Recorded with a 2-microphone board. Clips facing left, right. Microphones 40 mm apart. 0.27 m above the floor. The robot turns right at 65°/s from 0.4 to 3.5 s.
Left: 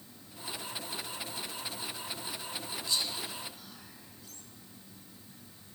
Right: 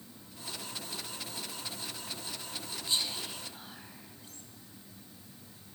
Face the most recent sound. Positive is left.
turn(degrees=-40)  # may be behind; listen again after turning